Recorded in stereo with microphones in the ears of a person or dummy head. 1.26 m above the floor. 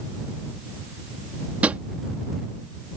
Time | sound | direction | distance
1.6 | a drawer | 10° right (ahead or behind) | ?